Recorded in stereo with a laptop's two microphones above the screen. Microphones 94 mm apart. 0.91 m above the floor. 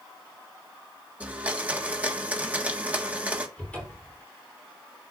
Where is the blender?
15° right (ahead or behind), 1.5 m.